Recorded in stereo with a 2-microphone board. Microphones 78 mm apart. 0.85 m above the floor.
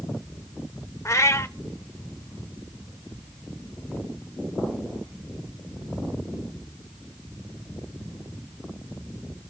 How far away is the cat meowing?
About 0.9 m.